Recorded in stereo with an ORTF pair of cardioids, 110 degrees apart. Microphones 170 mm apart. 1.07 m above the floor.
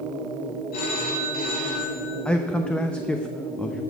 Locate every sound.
0.7 s a phone ringing: 60° left, 3 m
2.2 s a man speaking: 5° left, 0.7 m